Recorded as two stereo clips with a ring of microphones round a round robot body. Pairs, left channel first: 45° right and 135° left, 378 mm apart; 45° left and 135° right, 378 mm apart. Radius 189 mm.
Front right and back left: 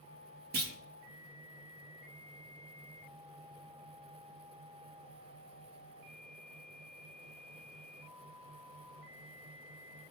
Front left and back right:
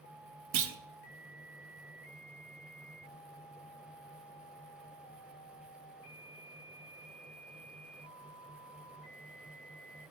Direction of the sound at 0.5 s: 165° right.